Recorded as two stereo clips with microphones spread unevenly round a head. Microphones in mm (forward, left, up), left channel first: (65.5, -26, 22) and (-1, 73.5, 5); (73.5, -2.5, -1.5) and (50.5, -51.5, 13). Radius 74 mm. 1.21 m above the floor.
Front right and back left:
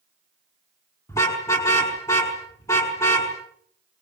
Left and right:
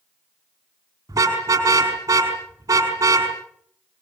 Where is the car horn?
125° right, 5 m.